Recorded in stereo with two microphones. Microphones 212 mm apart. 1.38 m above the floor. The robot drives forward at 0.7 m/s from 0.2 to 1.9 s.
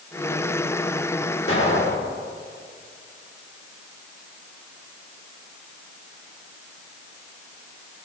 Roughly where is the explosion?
Left.